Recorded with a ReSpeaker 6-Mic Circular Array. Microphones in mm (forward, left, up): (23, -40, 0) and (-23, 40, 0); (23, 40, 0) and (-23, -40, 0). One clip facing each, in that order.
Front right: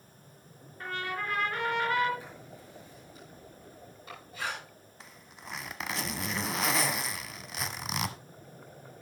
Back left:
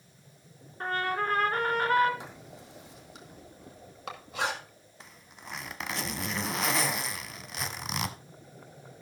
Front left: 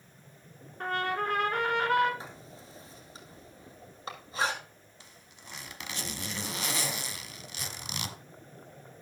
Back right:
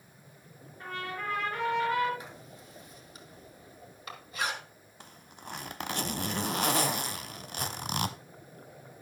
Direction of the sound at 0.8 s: 75° left.